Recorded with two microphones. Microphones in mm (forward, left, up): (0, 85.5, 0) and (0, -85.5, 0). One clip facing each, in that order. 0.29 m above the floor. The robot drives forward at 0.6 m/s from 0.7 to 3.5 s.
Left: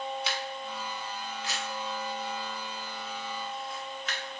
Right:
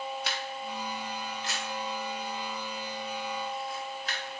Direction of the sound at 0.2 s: 60° right (ahead or behind).